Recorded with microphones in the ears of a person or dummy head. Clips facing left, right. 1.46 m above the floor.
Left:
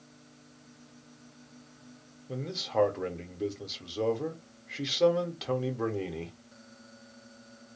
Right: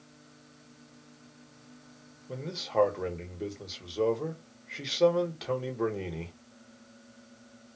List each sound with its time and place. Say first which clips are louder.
2.3 s a man speaking: even; 5° right (ahead or behind), 1.1 m